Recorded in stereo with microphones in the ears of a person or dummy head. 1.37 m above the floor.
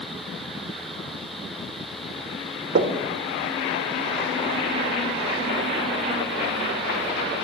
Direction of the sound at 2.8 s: 45° right (ahead or behind).